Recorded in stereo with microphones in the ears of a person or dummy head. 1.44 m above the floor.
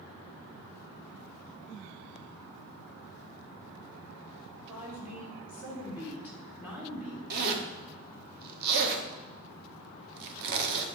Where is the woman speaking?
5° right (ahead or behind), 3.5 m.